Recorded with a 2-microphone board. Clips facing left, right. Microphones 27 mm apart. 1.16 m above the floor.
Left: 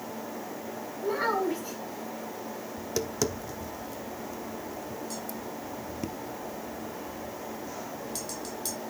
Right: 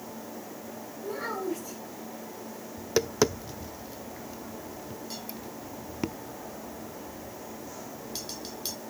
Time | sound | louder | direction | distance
1.0 | a child speaking | left 6 dB | 35° left (ahead or behind) | 7.5 m
2.8 | tapping | right 5 dB | 35° right (ahead or behind) | 0.8 m